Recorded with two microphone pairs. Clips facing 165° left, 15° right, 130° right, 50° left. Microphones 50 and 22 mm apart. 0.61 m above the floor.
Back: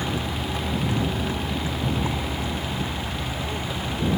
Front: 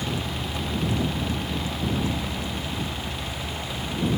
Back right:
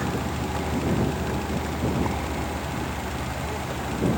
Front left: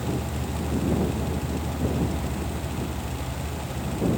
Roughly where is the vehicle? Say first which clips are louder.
Back 2 dB, back right 2 dB; behind right.